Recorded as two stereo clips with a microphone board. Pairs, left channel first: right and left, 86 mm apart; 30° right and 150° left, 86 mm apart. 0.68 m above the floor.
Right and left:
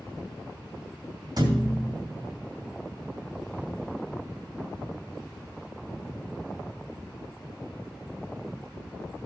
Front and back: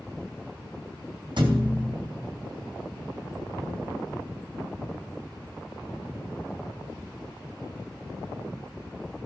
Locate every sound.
1.4 s a thud: 125° left, 2.5 m